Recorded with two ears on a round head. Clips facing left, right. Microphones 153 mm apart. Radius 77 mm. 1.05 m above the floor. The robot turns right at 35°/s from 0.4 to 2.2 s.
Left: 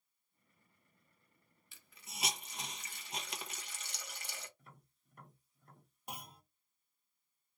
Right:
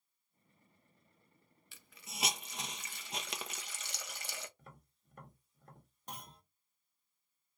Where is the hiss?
55° right (ahead or behind), 0.8 m; by 4.5 s 60° right (ahead or behind), 0.8 m.